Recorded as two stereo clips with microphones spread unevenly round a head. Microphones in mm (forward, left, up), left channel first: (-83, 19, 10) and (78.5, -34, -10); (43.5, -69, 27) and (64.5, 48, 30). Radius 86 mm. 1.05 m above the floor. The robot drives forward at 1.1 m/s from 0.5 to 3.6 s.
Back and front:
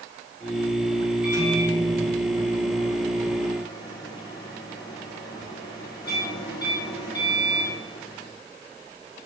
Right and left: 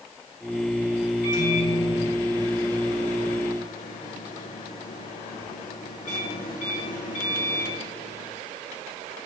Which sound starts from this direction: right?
A microwave, at 1.2 s.